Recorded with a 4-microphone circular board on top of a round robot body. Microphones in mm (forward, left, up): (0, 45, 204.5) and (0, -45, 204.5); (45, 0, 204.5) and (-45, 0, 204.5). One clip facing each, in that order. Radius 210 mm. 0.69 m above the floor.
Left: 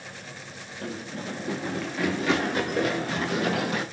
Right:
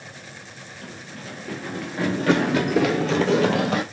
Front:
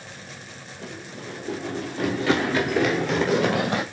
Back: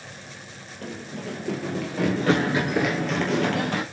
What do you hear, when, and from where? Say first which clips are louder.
0.8 s running footsteps: left 6 dB, back 4 dB; 145° left, 1.6 m; by 3.8 s 75° right, 1.9 m